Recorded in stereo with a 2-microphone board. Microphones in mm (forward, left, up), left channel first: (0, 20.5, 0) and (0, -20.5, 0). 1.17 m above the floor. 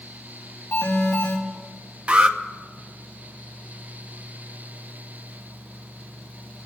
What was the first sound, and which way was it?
An alarm, 70° left (ahead or behind).